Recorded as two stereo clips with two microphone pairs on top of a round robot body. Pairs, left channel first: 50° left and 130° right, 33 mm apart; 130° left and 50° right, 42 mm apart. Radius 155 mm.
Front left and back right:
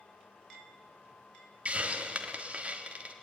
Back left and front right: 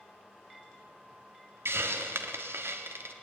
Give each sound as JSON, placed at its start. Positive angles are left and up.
{"t": 1.6, "sound": "a hiss", "azimuth_deg": -75, "distance_m": 1.3}